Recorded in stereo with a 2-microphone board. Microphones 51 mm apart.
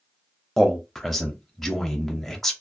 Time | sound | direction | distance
0.6 | a man speaking | 10° left (ahead or behind) | 0.6 m